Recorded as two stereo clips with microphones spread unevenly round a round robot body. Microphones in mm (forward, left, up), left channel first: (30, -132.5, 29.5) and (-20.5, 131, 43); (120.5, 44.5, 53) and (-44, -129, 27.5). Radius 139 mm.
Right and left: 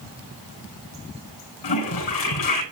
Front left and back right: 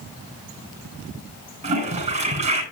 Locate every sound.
1.6 s a toilet flushing: 70° right, 9 m